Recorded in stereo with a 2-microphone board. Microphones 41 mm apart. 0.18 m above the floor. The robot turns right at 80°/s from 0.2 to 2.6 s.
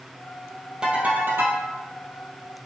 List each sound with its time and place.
0.8 s a ringtone: 160° right, 3 m; by 1.6 s 90° right, 3 m